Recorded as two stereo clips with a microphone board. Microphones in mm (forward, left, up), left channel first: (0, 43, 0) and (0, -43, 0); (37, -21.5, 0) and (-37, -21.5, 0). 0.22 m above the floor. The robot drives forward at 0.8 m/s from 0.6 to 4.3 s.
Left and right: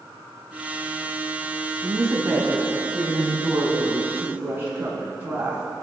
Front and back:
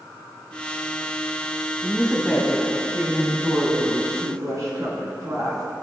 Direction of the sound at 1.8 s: 65° right.